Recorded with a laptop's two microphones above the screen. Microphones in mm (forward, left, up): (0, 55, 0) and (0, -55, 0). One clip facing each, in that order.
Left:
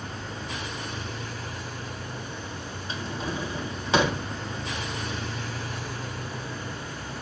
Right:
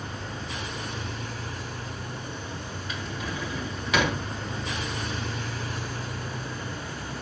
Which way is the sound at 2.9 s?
30° left (ahead or behind).